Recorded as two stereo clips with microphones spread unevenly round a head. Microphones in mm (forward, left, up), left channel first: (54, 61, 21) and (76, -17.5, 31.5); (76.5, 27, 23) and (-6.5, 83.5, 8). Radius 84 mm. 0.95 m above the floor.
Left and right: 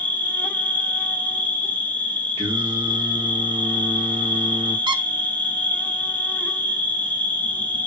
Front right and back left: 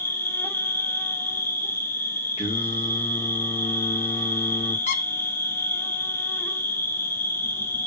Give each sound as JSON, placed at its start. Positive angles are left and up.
{"t": 0.0, "sound": "an insect", "azimuth_deg": 35, "distance_m": 1.1}
{"t": 2.4, "sound": "singing", "azimuth_deg": -95, "distance_m": 1.6}
{"t": 4.9, "sound": "a squeak", "azimuth_deg": -45, "distance_m": 0.8}